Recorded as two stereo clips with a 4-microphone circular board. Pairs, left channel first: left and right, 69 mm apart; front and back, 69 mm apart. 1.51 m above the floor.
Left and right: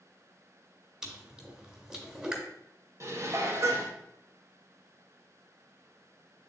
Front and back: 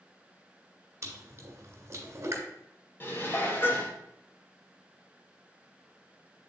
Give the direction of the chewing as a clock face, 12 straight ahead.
6 o'clock.